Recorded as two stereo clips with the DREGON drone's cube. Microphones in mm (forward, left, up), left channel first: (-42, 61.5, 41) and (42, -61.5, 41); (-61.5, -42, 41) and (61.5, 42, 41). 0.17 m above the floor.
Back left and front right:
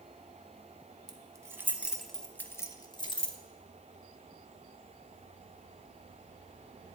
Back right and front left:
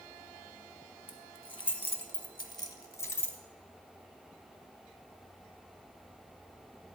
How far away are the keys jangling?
About 1.1 m.